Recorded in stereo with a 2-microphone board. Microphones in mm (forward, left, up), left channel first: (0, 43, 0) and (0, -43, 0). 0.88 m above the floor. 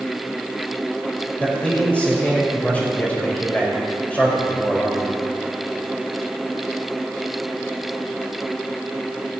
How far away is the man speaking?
About 4 m.